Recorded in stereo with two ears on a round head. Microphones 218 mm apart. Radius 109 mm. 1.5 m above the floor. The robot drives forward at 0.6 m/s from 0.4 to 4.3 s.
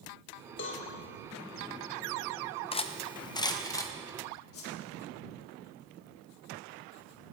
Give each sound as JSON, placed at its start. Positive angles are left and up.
{"t": 0.6, "sound": "a cowbell", "side_deg": 50, "distance_m": 1.3}
{"t": 2.7, "sound": "cutlery clinking", "side_deg": 25, "distance_m": 0.5}
{"t": 4.5, "sound": "a whoosh", "side_deg": 65, "distance_m": 1.7}